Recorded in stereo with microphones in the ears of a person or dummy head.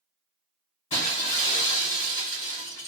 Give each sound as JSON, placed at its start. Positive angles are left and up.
{"t": 0.9, "sound": "breaking glass", "side_deg": 30, "distance_m": 2.5}